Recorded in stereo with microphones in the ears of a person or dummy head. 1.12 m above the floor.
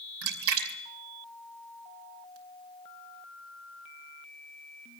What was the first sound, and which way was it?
A splash, 75° right (ahead or behind).